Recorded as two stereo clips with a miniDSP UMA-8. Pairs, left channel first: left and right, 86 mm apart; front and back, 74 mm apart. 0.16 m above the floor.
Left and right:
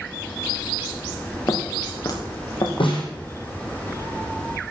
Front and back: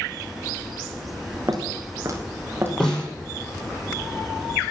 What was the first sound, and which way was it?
Footsteps, 140° left.